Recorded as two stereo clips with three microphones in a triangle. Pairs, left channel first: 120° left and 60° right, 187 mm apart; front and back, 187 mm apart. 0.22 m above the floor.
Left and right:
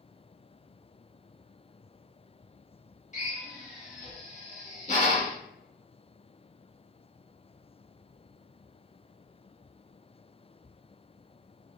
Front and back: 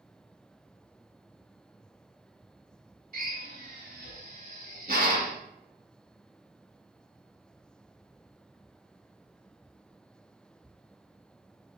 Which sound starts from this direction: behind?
A drill, at 3.1 s.